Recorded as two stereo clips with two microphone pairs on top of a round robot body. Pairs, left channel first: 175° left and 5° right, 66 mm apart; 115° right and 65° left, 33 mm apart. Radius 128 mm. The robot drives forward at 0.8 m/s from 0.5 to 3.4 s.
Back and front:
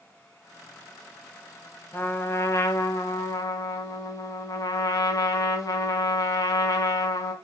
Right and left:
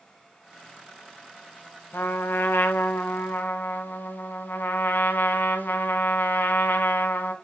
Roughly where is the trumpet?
Behind right.